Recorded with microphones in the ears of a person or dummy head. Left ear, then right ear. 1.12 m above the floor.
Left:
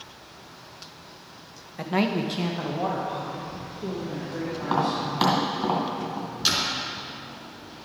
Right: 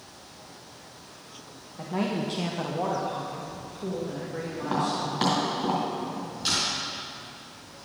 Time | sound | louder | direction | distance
1.8 | a man speaking | left 4 dB | 55° left (ahead or behind) | 0.7 m
4.6 | tapping | left 2 dB | 30° left (ahead or behind) | 2.0 m
6.5 | a door slam | left 2 dB | 30° left (ahead or behind) | 3 m